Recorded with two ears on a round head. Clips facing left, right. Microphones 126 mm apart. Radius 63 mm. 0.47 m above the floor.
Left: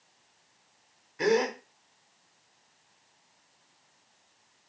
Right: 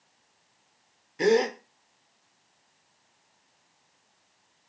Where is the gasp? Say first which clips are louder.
Right 3 dB; 30° right (ahead or behind), 1.1 m.